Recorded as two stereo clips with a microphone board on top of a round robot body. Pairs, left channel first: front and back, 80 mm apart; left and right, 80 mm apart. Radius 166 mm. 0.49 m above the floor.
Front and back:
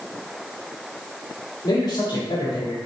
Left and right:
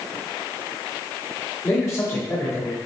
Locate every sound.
1.6 s a man speaking: 20° left, 2 m